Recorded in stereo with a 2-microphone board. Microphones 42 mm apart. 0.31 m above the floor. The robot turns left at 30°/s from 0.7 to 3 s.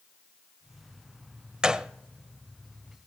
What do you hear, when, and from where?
1.6 s a gunshot: 20° right (ahead or behind), 0.5 m; by 1.9 s 15° right (ahead or behind), 0.5 m